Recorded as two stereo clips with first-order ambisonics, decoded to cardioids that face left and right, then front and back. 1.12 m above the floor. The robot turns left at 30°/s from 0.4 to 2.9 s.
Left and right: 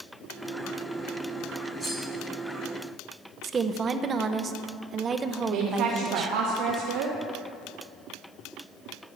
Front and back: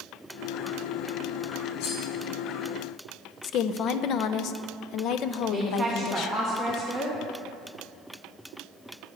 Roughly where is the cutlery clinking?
Ahead.